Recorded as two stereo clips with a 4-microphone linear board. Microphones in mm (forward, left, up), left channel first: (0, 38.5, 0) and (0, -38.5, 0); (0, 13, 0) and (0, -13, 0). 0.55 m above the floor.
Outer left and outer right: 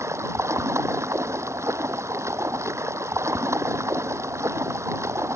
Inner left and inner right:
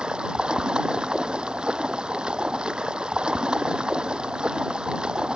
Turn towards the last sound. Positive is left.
turn(degrees=-40)  # may be behind; listen again after turning